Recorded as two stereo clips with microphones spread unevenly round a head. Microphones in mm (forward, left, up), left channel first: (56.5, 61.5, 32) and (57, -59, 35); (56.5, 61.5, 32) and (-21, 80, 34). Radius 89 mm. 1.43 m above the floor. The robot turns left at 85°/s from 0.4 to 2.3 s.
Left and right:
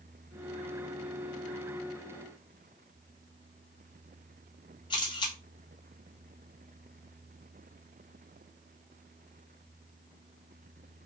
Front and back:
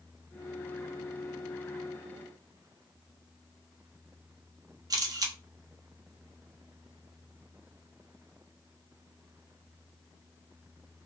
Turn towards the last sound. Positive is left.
turn(degrees=150)